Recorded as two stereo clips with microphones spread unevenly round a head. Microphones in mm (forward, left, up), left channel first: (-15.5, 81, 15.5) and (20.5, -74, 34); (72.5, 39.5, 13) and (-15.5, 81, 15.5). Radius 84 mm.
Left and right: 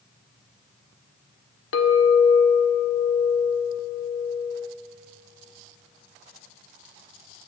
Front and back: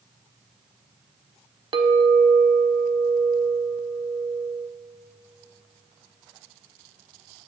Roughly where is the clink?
Behind left.